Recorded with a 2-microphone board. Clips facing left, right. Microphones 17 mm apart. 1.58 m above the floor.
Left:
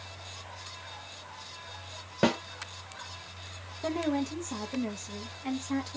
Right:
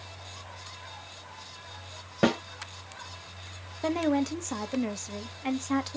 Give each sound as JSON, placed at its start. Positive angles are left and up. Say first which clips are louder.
{"t": 2.2, "sound": "a snare drum", "louder": "right 1 dB", "side_deg": 5, "distance_m": 0.9}
{"t": 3.8, "sound": "a woman speaking", "louder": "right 4 dB", "side_deg": -30, "distance_m": 0.6}